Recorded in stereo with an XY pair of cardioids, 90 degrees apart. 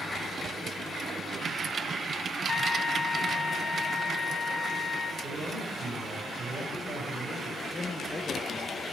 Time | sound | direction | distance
2.5 | a trumpet | 45° left | 1.0 m
5.2 | a man speaking | 45° right | 4.5 m
7.7 | a man speaking | 25° left | 1.5 m